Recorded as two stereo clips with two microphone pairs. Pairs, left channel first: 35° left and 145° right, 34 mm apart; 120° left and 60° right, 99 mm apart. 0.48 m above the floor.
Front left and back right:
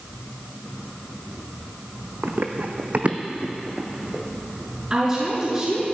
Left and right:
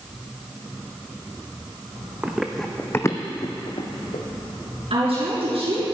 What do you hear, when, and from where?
2.2 s running footsteps: 135° right, 1.4 m; by 4.2 s 135° left, 2 m
4.9 s a woman speaking: 85° right, 5 m